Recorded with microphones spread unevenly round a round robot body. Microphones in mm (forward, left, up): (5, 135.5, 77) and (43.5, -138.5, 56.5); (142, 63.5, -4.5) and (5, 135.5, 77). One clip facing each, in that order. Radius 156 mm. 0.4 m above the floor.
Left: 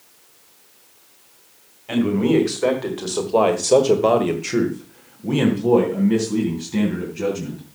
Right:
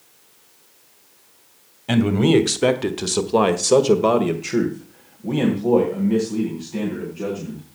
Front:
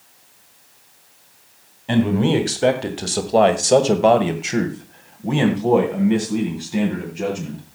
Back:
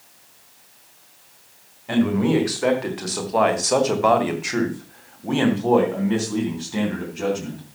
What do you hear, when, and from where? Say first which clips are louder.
1.9 s a man speaking: right 1 dB, front 1 dB; 75° right, 2.5 m; by 7.6 s 45° left, 4.5 m